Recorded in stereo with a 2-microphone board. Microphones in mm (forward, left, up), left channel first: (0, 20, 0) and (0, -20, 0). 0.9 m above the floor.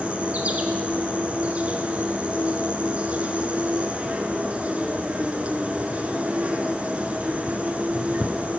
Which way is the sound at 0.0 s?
35° right (ahead or behind).